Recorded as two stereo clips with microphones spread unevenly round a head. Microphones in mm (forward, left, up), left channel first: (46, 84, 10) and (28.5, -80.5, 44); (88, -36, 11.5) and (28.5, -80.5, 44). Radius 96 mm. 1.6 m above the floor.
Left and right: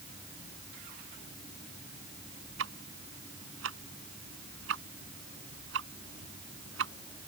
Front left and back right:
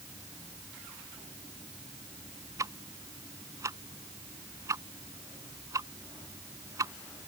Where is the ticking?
100° right.